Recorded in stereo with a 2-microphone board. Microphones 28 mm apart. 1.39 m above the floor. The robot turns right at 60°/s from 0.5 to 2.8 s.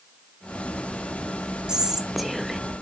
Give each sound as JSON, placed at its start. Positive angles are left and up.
{"t": 1.7, "sound": "whispering", "azimuth_deg": -40, "distance_m": 0.5}